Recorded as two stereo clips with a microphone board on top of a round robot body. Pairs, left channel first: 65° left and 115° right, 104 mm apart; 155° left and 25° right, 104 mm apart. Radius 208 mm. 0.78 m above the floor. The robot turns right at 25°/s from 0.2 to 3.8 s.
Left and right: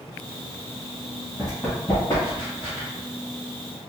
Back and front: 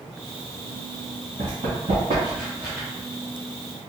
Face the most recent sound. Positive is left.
turn(degrees=115)